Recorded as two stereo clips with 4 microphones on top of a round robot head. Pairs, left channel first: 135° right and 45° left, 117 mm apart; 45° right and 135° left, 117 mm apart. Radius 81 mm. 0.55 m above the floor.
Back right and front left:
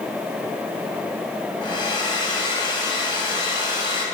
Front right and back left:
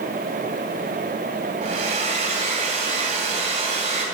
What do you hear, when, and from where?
1.6 s a hair dryer: 170° left, 3 m